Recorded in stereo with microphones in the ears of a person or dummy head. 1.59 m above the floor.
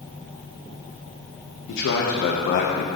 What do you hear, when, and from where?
1.7 s a man speaking: 65° left (ahead or behind), 1.5 m; by 2.9 s 50° left (ahead or behind), 1.0 m